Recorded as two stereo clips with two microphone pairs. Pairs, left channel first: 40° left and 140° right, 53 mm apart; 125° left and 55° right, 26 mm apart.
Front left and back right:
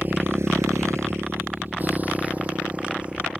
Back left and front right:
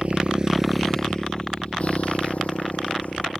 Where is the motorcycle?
85° right; by 3.4 s 150° left.